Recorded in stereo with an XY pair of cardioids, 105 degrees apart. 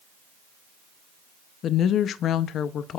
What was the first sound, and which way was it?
A woman speaking, 65° left.